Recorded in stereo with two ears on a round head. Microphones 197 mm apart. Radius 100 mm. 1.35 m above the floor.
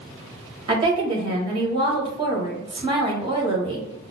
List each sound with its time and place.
0.7 s a woman speaking: 20° right (ahead or behind), 1.3 m